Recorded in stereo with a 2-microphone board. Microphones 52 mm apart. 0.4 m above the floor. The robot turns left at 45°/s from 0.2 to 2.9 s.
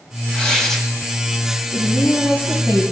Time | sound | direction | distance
0.3 | tearing paper | 20° left (ahead or behind) | 2 m
1.7 | a woman speaking | straight ahead | 5 m